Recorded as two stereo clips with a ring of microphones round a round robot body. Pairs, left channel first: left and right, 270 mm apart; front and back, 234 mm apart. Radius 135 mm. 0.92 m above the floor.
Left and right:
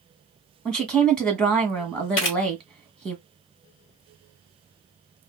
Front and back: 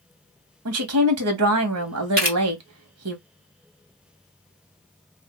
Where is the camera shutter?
130° left, 1.5 m.